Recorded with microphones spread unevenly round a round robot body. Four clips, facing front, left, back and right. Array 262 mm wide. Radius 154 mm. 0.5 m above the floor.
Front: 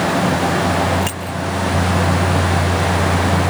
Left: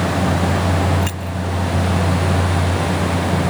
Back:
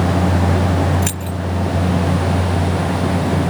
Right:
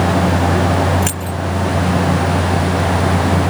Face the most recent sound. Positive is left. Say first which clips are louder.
# right 3 dB, front 1 dB
turn(degrees=-175)